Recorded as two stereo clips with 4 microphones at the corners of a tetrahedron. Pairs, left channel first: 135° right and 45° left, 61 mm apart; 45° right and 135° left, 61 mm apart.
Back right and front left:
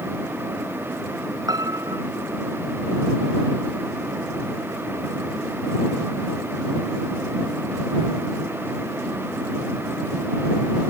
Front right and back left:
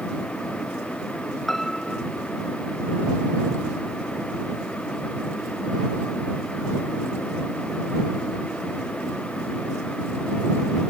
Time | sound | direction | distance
1.5 | a piano | 40° left | ?